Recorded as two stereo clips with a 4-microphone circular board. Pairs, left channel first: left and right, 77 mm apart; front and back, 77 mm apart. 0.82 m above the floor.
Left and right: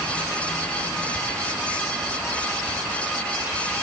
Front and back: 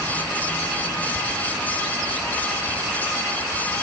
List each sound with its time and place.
Only background noise.